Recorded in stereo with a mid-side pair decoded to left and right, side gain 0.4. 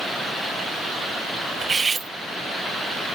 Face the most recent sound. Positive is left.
turn(degrees=-35)